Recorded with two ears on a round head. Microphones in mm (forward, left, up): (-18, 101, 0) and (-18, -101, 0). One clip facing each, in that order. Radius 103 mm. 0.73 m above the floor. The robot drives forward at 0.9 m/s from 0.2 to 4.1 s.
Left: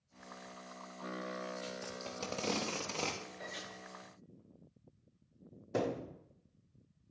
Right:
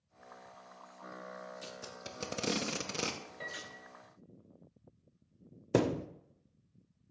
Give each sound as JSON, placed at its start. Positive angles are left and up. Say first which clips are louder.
{"t": 1.6, "sound": "tape being pulled", "louder": "left 4 dB", "side_deg": -10, "distance_m": 1.2}
{"t": 3.4, "sound": "a piano", "louder": "left 1 dB", "side_deg": -55, "distance_m": 1.8}
{"t": 5.7, "sound": "a thud", "louder": "right 6 dB", "side_deg": -60, "distance_m": 0.5}